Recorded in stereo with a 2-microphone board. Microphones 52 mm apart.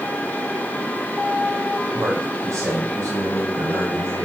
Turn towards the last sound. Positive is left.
turn(degrees=-85)